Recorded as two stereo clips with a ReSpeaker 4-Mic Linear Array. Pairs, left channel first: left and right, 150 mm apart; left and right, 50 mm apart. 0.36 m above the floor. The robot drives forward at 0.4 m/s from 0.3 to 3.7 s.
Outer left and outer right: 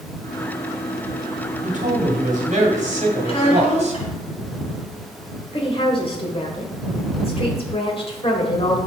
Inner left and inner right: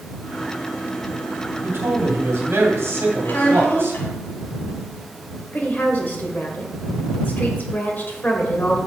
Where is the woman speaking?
35° left (ahead or behind), 1.6 m.